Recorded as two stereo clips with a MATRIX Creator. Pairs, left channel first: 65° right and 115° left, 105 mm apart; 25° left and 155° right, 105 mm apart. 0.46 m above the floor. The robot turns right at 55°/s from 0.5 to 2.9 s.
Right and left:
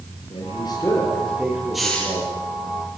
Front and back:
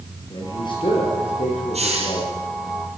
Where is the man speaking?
25° right, 9.5 m; by 2.3 s 70° left, 9.5 m.